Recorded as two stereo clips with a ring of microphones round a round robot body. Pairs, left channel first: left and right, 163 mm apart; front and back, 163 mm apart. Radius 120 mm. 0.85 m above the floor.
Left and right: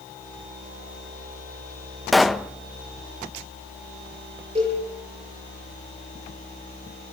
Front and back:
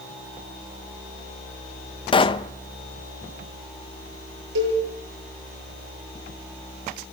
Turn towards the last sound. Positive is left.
turn(degrees=-160)